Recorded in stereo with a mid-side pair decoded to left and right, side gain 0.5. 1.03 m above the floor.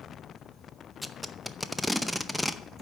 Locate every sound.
1.0 s tape being pulled: 10° left, 0.6 m